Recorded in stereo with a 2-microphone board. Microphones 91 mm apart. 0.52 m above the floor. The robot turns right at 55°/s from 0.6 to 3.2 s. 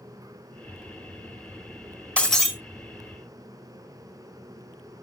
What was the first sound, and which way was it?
Breaking glass, 10° left (ahead or behind).